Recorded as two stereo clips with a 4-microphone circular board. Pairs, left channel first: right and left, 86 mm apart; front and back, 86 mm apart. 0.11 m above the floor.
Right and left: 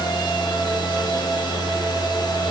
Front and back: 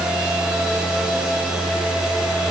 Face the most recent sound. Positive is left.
No sound to turn to.